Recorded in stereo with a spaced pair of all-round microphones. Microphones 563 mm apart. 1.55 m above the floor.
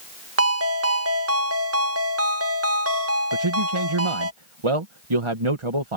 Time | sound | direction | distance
0.4 | a ringtone | 25° right (ahead or behind) | ?
3.3 | a man speaking | 60° right (ahead or behind) | ?